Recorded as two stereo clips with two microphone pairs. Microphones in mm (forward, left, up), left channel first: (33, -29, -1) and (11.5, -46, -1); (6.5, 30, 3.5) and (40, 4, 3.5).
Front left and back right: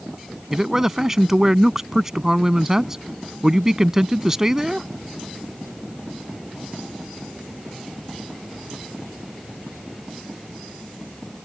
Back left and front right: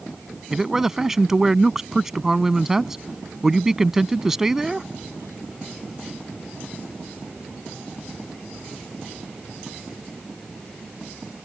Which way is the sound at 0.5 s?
100° right.